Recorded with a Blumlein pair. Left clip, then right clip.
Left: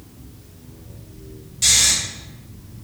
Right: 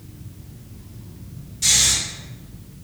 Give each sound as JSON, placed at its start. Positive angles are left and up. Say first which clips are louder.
{"t": 1.6, "sound": "snoring", "louder": "left 1 dB", "azimuth_deg": 25, "distance_m": 1.1}